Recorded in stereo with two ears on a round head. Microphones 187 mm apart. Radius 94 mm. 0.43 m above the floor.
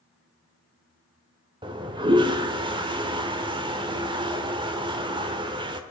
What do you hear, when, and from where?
1.6 s a toilet flushing: 20° right (ahead or behind), 1.2 m